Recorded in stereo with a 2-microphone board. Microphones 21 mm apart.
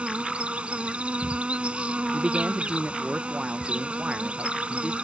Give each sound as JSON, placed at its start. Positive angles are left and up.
{"t": 0.0, "sound": "an insect", "side_deg": -70}
{"t": 2.1, "sound": "a man speaking", "side_deg": -50}